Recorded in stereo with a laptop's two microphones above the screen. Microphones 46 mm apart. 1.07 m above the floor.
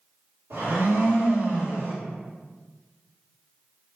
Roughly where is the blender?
Right.